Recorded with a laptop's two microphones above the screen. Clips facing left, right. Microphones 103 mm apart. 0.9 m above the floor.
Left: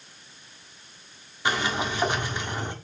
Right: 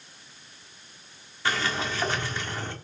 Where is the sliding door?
15° left (ahead or behind), 1.5 m.